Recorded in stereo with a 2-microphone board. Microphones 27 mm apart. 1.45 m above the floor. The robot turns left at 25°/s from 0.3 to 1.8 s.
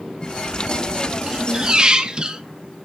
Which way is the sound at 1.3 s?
20° right (ahead or behind).